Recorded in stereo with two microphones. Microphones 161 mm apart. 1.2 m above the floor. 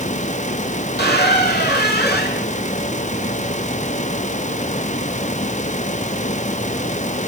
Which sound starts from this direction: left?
A squeak, at 1.0 s.